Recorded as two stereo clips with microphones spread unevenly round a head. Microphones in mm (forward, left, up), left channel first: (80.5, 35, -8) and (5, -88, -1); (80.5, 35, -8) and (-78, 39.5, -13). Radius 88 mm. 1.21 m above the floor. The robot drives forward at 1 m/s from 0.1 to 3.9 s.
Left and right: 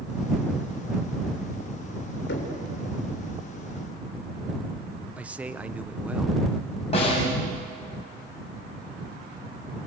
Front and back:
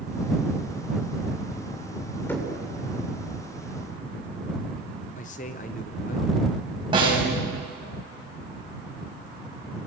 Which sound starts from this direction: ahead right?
A man speaking, at 5.2 s.